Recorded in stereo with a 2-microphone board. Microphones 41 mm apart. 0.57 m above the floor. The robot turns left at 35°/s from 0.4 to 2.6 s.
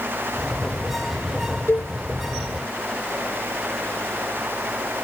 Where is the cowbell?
65° left (ahead or behind); by 1.9 s 75° left (ahead or behind).